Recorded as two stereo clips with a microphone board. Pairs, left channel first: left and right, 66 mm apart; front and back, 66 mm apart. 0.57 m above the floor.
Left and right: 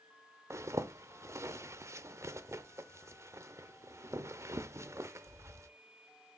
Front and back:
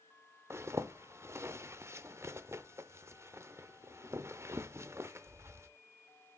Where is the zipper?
130° right, 0.7 m.